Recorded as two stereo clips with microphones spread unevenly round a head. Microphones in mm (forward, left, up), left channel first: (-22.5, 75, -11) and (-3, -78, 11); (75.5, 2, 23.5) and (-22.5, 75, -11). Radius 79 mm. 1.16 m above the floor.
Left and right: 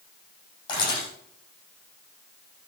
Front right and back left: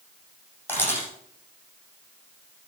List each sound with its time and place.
0.7 s a camera shutter: 35° left, 8 m